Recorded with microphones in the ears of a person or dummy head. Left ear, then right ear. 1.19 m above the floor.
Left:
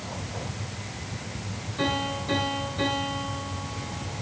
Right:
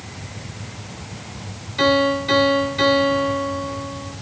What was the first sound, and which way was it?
A piano, 60° right (ahead or behind).